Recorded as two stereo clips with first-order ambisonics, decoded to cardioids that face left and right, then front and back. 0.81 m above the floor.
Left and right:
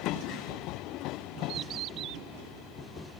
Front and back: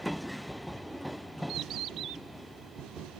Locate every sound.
1.5 s a bird: 135° right, 0.6 m